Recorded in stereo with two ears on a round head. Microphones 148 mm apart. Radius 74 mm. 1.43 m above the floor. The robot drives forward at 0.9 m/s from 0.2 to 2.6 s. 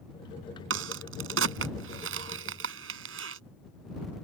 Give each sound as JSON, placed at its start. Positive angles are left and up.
{"t": 0.7, "sound": "a crack", "side_deg": -85}